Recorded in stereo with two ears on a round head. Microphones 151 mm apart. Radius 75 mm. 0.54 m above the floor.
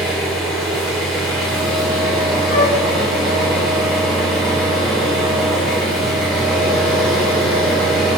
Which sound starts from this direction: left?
A flute, at 2.5 s.